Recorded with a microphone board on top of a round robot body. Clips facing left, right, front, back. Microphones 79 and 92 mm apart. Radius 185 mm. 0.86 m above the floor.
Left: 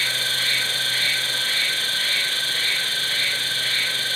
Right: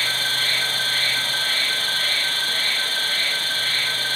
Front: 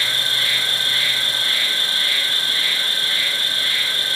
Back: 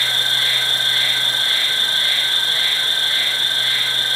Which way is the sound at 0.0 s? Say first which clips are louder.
Right 1 dB, back 2 dB; 125° right.